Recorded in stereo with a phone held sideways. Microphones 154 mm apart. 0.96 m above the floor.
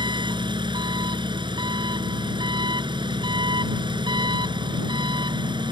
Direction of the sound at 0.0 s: 30° right (ahead or behind).